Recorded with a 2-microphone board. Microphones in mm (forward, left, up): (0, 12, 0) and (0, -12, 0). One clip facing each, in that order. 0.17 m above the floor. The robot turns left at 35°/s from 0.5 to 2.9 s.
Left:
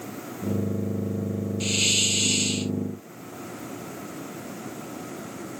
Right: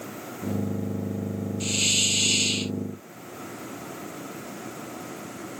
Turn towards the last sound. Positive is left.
turn(degrees=-35)